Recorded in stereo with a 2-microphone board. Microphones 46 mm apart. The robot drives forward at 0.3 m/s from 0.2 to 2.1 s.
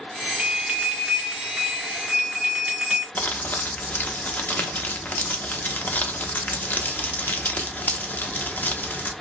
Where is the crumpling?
40° left (ahead or behind), 0.6 m.